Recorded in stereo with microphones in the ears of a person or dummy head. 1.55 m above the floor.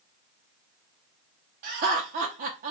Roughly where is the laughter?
Right.